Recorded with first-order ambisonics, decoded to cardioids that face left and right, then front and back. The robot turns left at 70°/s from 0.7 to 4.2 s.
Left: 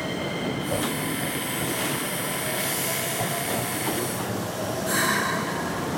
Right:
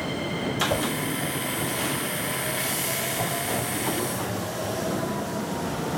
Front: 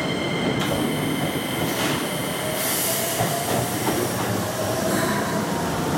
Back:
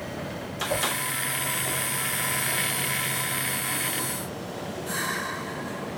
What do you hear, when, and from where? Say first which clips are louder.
0.7 s a whoosh: left 1 dB, front 3 dB; 85° right, 0.7 m; by 0.8 s 95° right, 0.7 m